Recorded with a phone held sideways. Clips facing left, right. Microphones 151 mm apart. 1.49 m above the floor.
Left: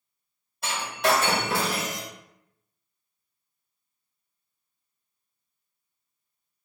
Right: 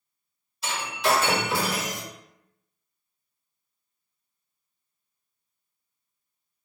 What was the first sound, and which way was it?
Breaking glass, 55° left (ahead or behind).